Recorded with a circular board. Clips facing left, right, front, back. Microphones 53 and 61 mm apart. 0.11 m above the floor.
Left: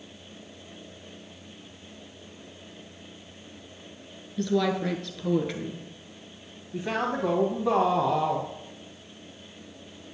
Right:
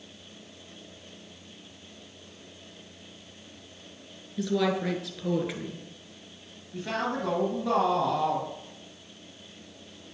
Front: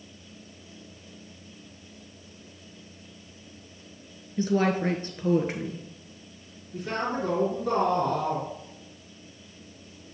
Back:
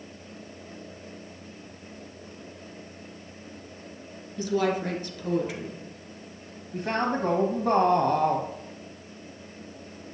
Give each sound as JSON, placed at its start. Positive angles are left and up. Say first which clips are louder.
{"t": 4.4, "sound": "a woman speaking", "louder": "left 1 dB, front 1 dB", "azimuth_deg": -10, "distance_m": 1.4}
{"t": 6.7, "sound": "a man speaking", "louder": "left 2 dB, back 3 dB", "azimuth_deg": 155, "distance_m": 2.0}